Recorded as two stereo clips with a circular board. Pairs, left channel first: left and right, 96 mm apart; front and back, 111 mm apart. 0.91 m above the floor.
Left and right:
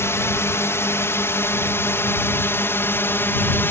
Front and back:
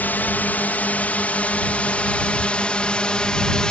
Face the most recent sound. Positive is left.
turn(degrees=70)